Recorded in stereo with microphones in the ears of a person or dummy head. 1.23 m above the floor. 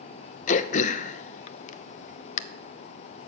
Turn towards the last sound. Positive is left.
turn(degrees=45)  # may be behind; listen again after turning